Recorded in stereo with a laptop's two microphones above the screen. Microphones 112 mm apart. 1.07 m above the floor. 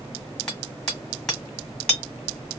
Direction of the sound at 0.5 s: 10° left (ahead or behind).